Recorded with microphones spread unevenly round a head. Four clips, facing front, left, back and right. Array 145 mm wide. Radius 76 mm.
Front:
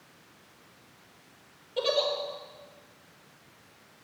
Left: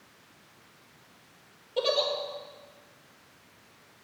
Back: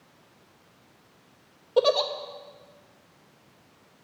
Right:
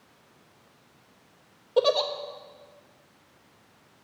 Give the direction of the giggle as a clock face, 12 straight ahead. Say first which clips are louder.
Right 5 dB, back 6 dB; 5 o'clock.